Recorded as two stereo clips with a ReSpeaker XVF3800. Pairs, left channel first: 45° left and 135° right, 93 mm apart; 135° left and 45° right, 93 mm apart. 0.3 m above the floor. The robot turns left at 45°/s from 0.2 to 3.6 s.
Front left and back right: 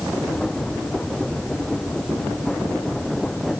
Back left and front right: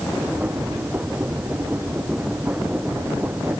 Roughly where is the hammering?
No hammering in this recording.